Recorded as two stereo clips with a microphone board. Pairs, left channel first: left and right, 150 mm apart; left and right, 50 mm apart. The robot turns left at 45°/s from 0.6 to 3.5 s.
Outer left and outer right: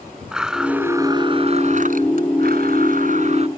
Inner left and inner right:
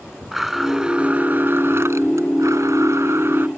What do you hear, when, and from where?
0.3 s a blender: 5° right; by 3.5 s 135° right